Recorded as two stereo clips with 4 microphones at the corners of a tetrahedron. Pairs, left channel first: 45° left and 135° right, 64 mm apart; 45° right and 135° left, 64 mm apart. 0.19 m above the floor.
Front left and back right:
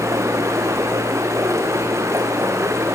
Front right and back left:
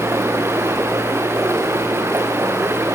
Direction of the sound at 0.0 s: 175° right.